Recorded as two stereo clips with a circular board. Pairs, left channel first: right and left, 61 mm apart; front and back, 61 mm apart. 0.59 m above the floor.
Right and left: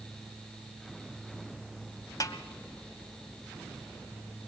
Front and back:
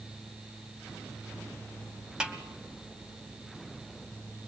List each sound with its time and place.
2.2 s a snare drum: 105° right, 2 m